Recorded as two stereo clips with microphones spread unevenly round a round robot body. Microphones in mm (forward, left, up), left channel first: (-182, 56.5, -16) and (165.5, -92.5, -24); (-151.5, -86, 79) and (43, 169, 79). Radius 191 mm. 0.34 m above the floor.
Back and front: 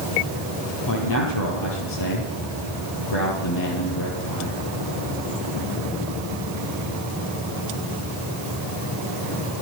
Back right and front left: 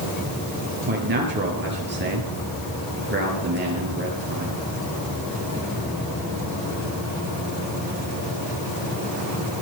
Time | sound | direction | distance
0.9 | a man speaking | 110° left | 9 m